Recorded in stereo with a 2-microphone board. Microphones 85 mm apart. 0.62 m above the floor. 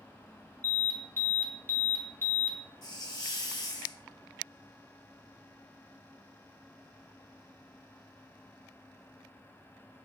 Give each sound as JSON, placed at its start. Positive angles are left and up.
{"t": 0.6, "sound": "an alarm", "side_deg": 25, "distance_m": 0.5}
{"t": 2.8, "sound": "a hiss", "side_deg": 50, "distance_m": 0.7}